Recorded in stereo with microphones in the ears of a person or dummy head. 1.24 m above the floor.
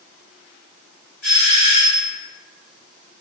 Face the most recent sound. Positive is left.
turn(degrees=45)  # may be behind; listen again after turning